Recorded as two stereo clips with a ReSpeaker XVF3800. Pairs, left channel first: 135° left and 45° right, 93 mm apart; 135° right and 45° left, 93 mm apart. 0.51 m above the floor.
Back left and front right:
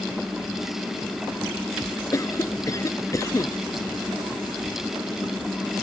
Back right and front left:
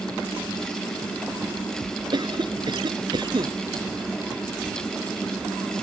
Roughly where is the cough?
Left.